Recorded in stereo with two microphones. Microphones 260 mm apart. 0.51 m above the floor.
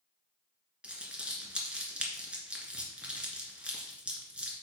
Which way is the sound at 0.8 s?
5° right (ahead or behind).